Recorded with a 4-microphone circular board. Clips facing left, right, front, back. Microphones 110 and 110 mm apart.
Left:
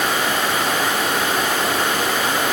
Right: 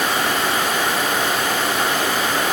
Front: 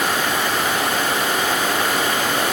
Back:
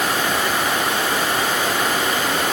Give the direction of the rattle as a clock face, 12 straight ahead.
No rattle in this recording.